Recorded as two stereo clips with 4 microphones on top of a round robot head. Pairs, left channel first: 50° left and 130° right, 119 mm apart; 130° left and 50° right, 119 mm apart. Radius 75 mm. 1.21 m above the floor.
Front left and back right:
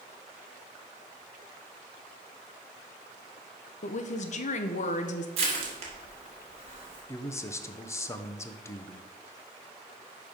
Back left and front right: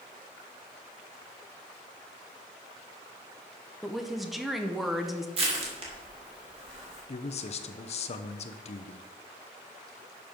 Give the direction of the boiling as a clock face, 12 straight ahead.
No boiling in this recording.